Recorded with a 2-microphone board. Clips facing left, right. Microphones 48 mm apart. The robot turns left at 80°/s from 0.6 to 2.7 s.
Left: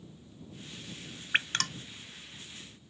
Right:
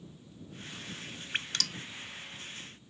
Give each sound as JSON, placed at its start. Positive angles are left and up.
{"t": 1.3, "sound": "dripping", "side_deg": 40}